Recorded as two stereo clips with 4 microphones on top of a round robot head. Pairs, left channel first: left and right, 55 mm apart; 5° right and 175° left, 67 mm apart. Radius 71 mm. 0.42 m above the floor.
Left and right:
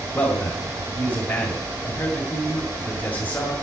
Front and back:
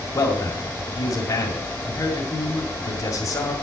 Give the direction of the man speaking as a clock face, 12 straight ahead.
11 o'clock.